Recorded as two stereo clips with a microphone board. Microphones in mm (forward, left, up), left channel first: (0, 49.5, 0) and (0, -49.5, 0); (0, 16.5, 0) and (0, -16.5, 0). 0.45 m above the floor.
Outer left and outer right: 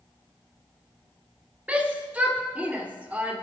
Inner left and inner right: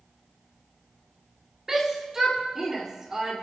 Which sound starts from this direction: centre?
A shout, at 1.7 s.